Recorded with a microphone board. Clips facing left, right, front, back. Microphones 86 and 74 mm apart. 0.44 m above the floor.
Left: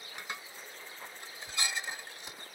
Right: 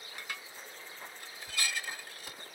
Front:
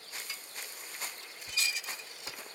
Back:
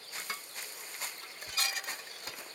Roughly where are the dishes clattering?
Behind left.